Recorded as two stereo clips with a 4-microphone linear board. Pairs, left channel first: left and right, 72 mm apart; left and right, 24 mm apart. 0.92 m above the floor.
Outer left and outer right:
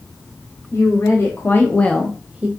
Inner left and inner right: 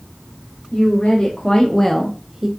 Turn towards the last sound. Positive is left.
turn(degrees=-20)  # may be behind; listen again after turning